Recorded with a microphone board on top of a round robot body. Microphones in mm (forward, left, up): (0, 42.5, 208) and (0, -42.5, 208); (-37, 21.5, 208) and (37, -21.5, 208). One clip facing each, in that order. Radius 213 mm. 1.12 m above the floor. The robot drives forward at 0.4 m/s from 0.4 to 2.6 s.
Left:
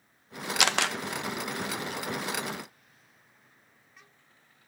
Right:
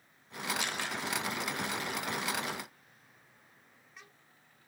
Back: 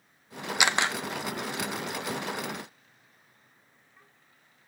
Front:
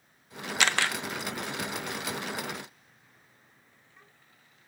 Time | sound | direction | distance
0.6 | a camera shutter | 75° left | 0.9 m